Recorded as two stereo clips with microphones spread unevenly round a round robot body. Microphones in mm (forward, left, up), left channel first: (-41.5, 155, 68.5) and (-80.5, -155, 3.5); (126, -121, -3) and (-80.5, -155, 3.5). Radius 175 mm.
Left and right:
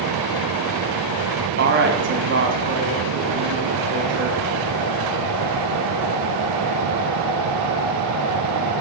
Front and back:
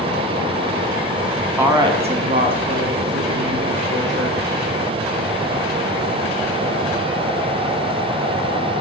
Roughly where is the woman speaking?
Right.